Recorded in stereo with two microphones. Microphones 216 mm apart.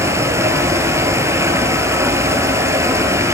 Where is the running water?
10° right (ahead or behind), 3 m.